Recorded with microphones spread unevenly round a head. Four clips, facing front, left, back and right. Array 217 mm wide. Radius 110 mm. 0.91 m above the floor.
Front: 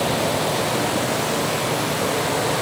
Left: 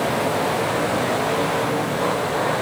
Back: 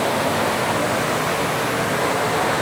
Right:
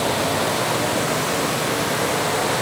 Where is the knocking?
I don't hear knocking.